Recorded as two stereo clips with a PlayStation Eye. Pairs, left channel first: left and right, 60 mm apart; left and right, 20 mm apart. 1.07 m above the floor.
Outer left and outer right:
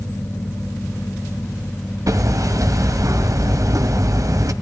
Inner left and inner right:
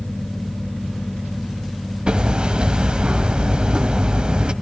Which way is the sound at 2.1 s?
65° right (ahead or behind).